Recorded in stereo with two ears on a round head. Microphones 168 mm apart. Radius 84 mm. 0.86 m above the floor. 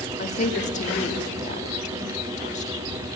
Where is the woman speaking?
45° left (ahead or behind), 2.0 m.